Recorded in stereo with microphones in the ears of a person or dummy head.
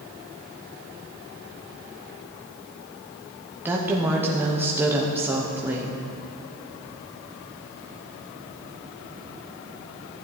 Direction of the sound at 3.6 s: 10° right (ahead or behind).